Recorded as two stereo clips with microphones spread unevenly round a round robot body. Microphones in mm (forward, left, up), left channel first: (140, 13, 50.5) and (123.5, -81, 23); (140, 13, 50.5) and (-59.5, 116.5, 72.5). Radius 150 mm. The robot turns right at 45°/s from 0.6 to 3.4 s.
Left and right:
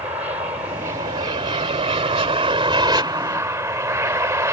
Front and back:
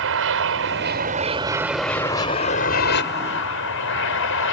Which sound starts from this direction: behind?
An aircraft, at 0.0 s.